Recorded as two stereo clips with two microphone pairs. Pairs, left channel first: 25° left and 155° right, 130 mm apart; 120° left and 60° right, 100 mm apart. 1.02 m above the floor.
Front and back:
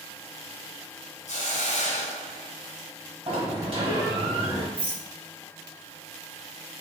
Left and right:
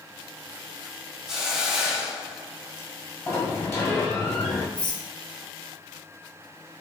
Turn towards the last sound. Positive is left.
turn(degrees=165)